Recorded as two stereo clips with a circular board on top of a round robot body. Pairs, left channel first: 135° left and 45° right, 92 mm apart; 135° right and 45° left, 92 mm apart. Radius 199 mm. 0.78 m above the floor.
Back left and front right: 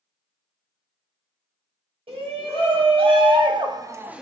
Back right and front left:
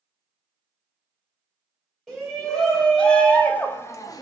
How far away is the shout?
About 1.6 m.